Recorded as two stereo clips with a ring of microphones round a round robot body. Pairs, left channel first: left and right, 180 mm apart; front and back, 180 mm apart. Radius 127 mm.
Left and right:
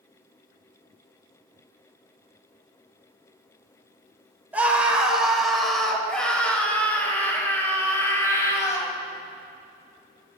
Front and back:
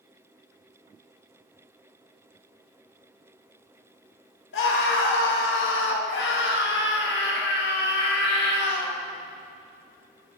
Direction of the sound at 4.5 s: 10° right.